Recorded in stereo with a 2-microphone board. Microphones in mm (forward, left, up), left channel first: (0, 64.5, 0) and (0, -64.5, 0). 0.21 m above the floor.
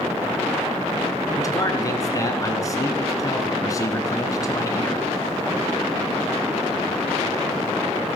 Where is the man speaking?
25° left (ahead or behind), 2.5 m.